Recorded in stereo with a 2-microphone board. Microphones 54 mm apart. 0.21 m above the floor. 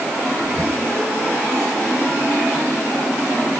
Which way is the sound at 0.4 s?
70° right (ahead or behind).